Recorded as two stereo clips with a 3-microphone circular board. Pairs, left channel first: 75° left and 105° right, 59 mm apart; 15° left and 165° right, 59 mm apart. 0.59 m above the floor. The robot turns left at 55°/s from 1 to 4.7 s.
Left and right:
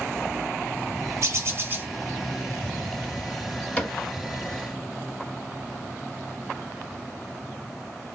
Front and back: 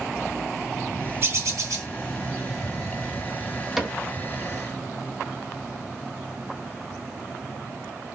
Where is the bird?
130° right, 0.9 m; by 1.9 s 165° right, 0.9 m.